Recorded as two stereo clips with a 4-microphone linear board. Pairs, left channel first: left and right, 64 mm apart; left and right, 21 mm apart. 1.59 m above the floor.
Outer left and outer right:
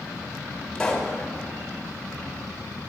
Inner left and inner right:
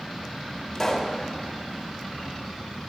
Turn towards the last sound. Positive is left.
turn(degrees=10)  # may be behind; listen again after turning